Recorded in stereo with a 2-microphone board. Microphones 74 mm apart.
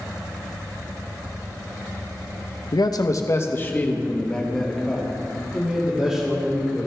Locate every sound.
2.7 s a man speaking: 65° left (ahead or behind), 0.8 m; by 6.9 s 10° right (ahead or behind), 3 m